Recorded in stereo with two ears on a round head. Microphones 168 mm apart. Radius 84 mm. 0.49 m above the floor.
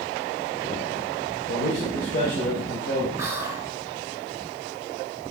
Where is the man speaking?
50° left (ahead or behind), 1.5 m; by 3.1 s 65° left (ahead or behind), 2.5 m.